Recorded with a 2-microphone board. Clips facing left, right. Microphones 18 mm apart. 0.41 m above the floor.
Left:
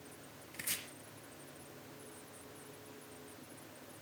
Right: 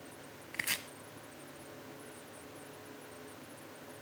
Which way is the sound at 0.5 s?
55° right (ahead or behind).